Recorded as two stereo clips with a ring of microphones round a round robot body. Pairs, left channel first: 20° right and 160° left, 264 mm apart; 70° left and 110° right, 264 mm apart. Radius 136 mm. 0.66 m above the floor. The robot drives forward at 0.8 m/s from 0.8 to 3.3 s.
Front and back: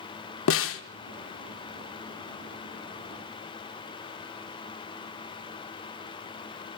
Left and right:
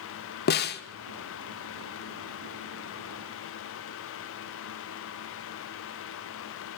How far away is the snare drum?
About 1.5 m.